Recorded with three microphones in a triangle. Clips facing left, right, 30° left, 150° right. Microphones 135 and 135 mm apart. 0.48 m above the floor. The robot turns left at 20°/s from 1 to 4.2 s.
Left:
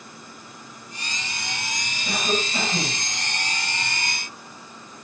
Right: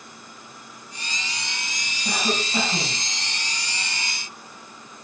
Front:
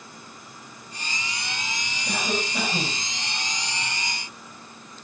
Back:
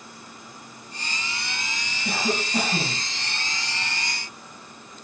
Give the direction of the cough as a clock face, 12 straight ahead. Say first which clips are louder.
Even, back 2 dB; 5 o'clock.